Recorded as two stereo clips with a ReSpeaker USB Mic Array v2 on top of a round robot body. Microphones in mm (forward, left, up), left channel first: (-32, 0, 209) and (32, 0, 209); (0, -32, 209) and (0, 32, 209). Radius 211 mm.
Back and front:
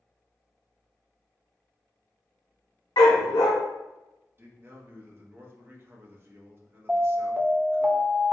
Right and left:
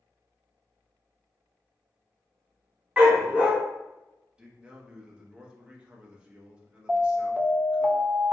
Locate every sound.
3.0 s a dog barking: 165° left, 0.6 m
4.4 s a man speaking: 25° left, 1.0 m
6.9 s an alarm: 35° left, 1.0 m